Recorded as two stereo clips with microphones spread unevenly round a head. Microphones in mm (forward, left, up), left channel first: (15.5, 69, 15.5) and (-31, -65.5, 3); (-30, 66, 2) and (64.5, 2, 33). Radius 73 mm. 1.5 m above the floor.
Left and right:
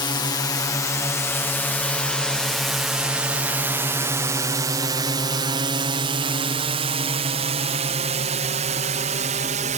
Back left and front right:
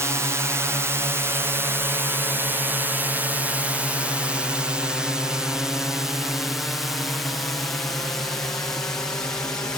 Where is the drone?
35° left; by 9.8 s 140° right.